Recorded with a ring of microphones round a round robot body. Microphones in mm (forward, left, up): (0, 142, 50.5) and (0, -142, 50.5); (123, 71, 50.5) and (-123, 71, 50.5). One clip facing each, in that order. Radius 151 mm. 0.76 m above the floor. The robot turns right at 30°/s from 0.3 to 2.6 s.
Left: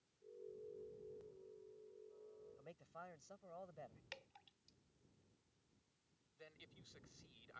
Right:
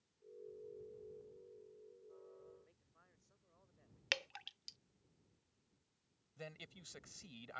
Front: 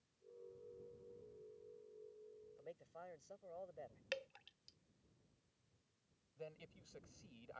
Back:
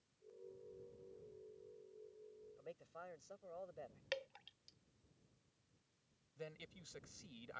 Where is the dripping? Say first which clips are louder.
Right 12 dB, back 1 dB; 85° right.